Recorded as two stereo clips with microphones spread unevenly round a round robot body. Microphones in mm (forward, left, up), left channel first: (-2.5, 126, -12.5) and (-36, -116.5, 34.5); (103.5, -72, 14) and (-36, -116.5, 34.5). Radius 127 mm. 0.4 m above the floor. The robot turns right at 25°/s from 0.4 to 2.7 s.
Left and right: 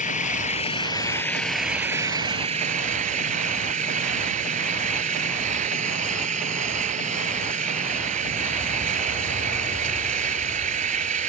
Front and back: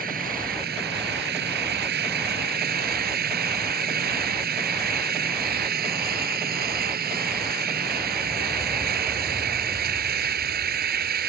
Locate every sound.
0.0 s an engine running: 145° left; by 11.3 s 160° right